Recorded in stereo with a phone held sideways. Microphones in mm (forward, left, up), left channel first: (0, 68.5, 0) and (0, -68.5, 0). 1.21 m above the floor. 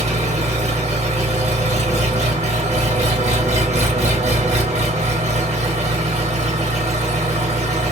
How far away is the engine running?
About 1.6 m.